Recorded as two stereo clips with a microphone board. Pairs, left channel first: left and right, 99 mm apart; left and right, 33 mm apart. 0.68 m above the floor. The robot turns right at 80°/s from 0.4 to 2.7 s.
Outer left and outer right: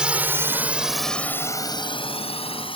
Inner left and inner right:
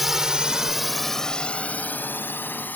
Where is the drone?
10° right (ahead or behind); by 2.8 s 60° left (ahead or behind).